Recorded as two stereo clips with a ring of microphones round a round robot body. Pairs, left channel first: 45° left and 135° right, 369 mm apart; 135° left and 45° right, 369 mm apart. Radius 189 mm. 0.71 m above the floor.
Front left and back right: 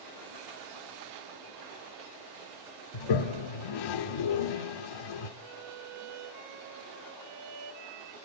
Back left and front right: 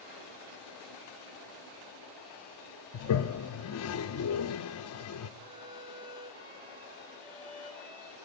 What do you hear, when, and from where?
2.9 s a toilet flushing: 80° left, 0.6 m
5.4 s a violin: 125° right, 1.9 m